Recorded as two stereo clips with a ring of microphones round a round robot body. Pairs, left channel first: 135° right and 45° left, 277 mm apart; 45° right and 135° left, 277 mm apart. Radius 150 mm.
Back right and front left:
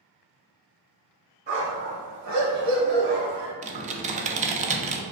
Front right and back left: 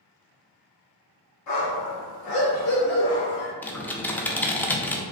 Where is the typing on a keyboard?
30° left, 0.5 m.